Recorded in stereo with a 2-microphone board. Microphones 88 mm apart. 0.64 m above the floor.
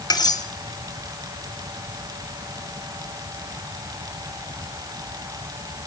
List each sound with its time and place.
0.1 s cutlery clinking: 50° left (ahead or behind), 1.9 m